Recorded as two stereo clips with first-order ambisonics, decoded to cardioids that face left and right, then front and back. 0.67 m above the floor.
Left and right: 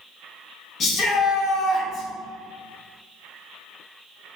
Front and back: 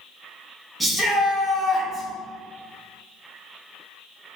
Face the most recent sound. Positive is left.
turn(degrees=90)